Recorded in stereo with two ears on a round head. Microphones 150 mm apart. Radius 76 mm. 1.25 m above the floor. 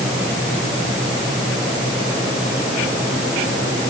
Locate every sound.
Only background noise.